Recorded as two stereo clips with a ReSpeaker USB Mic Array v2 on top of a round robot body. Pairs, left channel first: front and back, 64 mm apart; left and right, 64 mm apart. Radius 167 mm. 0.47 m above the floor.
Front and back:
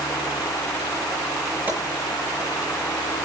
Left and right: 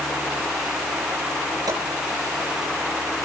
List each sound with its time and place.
1.7 s a gunshot: 115° right, 9 m